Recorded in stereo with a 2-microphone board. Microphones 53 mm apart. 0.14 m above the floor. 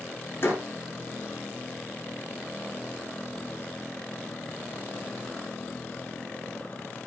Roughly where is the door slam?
Left.